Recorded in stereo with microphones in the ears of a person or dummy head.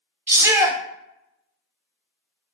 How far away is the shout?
About 0.6 m.